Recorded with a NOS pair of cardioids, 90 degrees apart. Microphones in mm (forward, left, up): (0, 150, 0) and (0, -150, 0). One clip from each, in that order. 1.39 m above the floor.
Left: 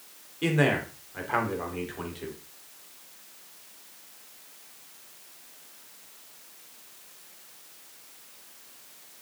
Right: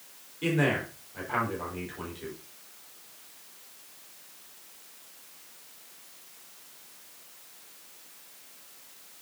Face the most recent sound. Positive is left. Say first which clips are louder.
# left 2 dB
turn(degrees=25)